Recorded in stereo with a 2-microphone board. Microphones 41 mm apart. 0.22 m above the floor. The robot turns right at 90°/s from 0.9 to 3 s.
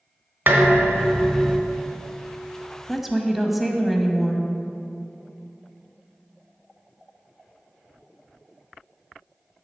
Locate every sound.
0.5 s dishes clattering: 115° right, 1.4 m; by 1.6 s 50° right, 1.4 m
2.9 s a woman speaking: centre (ahead or behind), 1.0 m; by 4.4 s 5° right (ahead or behind), 1.0 m